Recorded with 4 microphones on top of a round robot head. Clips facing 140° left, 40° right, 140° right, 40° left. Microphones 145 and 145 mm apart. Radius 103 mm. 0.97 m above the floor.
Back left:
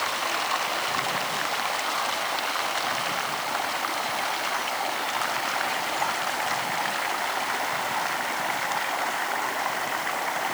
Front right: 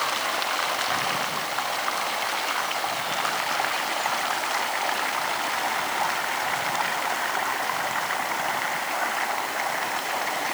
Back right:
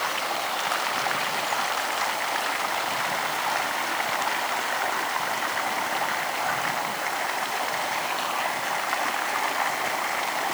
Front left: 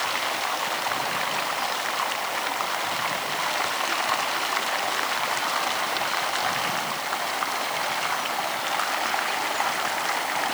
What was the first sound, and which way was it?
Only background noise.